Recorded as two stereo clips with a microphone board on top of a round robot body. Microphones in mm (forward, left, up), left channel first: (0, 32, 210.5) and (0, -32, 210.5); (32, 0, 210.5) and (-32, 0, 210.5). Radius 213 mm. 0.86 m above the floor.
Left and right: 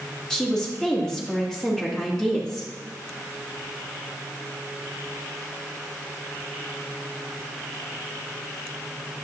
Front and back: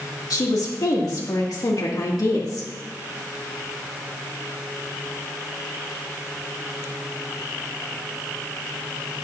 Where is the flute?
No flute in this recording.